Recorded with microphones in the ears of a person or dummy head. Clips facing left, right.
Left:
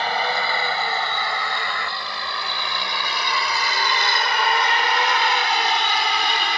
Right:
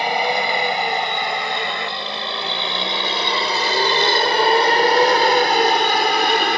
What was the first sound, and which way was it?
A vehicle, 20° right (ahead or behind).